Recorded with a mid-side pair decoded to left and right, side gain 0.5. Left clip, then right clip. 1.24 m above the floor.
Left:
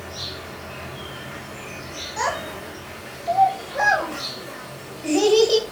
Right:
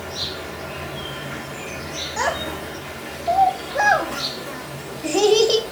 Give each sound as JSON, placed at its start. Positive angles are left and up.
{"t": 0.0, "sound": "an insect", "azimuth_deg": -40, "distance_m": 1.9}
{"t": 2.2, "sound": "a child speaking", "azimuth_deg": -35, "distance_m": 2.5}